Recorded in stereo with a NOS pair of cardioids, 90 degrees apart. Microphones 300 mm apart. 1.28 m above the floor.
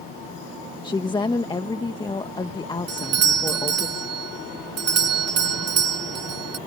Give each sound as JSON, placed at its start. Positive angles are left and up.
{"t": 0.8, "sound": "a woman speaking", "azimuth_deg": 15}
{"t": 2.9, "sound": "a doorbell", "azimuth_deg": -55}